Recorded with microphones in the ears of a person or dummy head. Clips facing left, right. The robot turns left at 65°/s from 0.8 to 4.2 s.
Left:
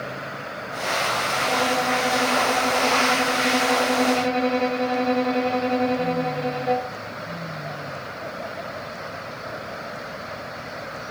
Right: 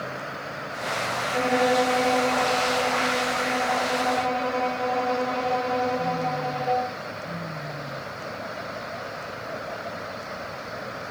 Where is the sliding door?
I don't hear a sliding door.